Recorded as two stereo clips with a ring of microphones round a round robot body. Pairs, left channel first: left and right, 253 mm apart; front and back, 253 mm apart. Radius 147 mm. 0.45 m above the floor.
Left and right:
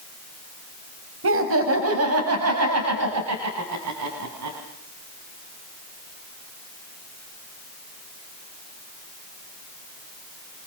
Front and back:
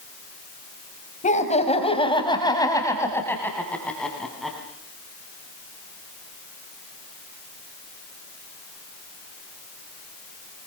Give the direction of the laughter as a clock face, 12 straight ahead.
2 o'clock.